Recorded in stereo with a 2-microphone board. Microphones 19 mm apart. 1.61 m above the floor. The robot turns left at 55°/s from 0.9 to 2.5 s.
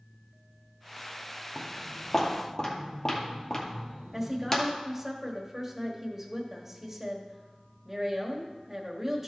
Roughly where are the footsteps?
Centre.